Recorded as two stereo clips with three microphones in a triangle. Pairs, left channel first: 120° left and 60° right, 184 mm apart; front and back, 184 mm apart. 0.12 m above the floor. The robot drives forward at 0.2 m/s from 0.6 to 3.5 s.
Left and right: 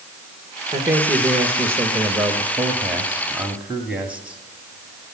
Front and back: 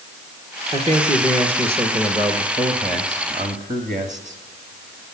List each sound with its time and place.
0.7 s a man speaking: 130° right, 1.7 m; by 5.1 s 145° right, 2 m